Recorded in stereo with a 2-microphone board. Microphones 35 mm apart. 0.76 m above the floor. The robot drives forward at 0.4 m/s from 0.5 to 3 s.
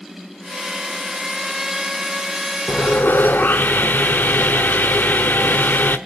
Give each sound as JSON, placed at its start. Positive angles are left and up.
{"t": 2.7, "sound": "sawing", "side_deg": 85, "distance_m": 1.1}